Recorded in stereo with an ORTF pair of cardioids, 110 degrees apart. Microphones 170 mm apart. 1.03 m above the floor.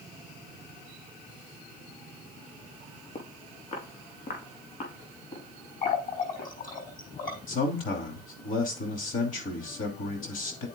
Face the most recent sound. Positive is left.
turn(degrees=55)